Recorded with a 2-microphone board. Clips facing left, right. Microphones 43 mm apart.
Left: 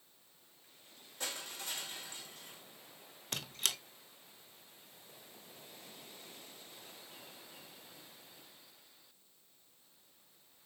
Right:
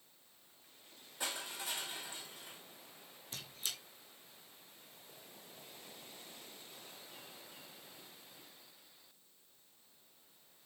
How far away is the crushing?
About 3.5 m.